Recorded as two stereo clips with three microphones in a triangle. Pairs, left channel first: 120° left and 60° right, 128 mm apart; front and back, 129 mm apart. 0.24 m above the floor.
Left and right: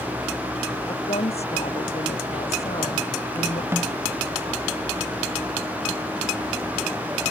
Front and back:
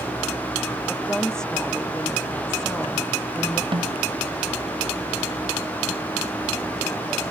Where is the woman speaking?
85° left.